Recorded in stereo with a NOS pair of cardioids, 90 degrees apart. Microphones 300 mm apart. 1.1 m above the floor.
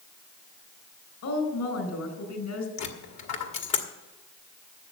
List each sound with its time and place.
1.2 s a woman speaking: 60° left, 5 m
2.8 s a dropped coin: 60° left, 2.0 m